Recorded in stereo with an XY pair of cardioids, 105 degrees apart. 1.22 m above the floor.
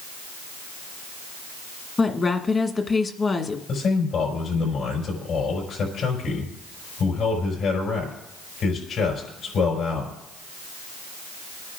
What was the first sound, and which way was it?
A woman speaking, 30° left.